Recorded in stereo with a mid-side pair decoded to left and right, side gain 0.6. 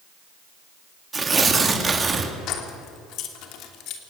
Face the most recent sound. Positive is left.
turn(degrees=65)